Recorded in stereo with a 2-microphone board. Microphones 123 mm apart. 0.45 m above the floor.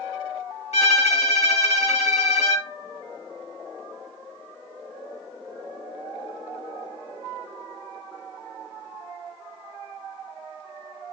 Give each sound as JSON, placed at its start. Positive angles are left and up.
{"t": 0.7, "sound": "a violin", "side_deg": 65, "distance_m": 0.8}